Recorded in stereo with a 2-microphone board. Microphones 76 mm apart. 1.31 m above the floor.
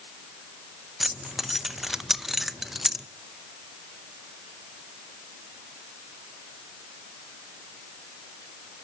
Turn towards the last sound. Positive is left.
turn(degrees=-5)  # may be behind; listen again after turning